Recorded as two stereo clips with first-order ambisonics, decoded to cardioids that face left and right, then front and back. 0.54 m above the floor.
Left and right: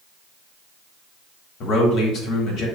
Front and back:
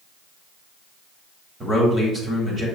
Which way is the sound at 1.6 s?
110° left.